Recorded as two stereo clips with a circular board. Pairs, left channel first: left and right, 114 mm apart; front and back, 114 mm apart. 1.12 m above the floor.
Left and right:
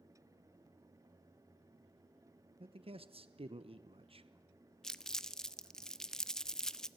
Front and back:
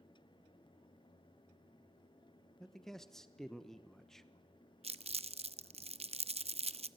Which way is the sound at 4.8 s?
175° left.